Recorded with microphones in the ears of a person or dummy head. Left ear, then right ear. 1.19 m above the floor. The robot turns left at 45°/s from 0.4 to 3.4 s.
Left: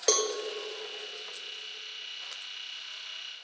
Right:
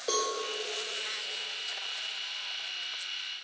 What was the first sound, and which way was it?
A cowbell, 65° left (ahead or behind).